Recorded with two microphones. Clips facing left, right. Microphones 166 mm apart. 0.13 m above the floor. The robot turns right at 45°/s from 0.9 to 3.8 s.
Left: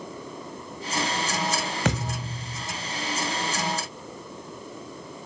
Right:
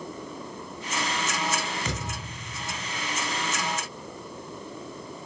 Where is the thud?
65° left, 2 m; by 2.6 s 100° left, 2 m.